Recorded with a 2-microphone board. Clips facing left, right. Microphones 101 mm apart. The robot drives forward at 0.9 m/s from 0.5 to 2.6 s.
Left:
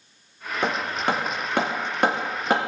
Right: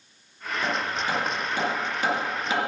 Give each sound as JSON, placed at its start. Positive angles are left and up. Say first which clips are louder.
{"t": 0.6, "sound": "hammering", "louder": "left 3 dB", "side_deg": 65, "distance_m": 2.5}